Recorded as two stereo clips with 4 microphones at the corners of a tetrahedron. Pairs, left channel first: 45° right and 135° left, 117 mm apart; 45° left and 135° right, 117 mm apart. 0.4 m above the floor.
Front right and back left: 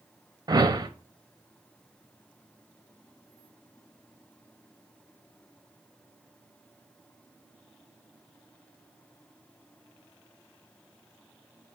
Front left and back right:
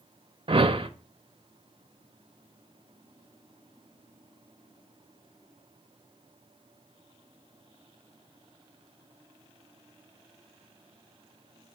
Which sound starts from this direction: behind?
A whoosh, at 0.5 s.